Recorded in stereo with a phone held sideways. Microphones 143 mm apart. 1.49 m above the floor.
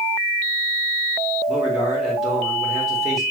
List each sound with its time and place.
1.5 s a man speaking: 5° right (ahead or behind), 4 m